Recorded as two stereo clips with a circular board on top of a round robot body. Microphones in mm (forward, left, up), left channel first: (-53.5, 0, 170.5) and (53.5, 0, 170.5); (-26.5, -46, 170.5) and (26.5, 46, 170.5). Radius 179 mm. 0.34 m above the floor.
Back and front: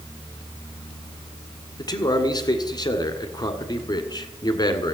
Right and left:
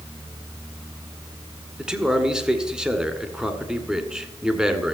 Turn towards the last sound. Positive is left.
turn(degrees=140)